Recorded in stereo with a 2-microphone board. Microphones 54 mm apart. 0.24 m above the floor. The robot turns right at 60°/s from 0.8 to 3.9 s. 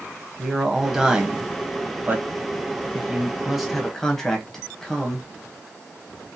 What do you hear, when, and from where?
0.4 s a man speaking: 5° right (ahead or behind), 1.1 m; by 5.2 s 10° left (ahead or behind), 1.1 m